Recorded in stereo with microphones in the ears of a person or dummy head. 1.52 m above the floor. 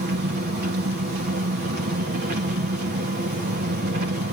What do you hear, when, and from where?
0.0 s an engine running: 50° right (ahead or behind), 2 m